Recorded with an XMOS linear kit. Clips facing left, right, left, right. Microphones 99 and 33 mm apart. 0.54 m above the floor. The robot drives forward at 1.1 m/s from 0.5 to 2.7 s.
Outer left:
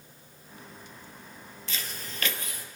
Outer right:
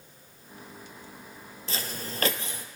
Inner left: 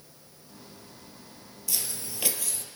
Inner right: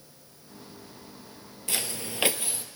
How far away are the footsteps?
About 0.7 m.